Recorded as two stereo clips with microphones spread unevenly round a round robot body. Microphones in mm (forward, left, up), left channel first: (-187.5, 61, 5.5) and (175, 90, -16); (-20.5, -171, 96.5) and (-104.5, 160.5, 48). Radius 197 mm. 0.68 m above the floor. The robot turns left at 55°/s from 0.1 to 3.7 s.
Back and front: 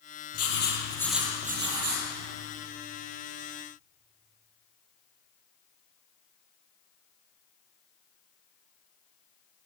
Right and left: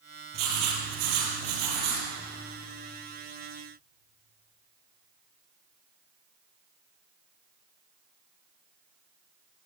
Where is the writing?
135° left, 7.5 m; by 2.0 s 45° left, 7.5 m.